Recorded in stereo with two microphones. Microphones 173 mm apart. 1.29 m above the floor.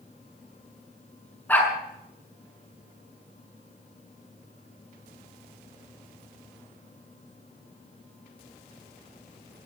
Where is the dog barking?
10° left (ahead or behind), 6.5 m.